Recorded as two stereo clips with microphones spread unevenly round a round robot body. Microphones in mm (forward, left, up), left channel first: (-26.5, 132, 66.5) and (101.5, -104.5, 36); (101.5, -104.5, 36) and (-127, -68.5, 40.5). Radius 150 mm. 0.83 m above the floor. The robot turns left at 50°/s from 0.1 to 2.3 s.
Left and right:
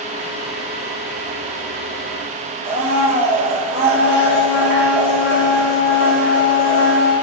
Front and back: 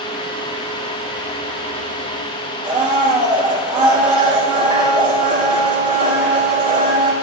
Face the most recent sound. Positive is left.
turn(degrees=-135)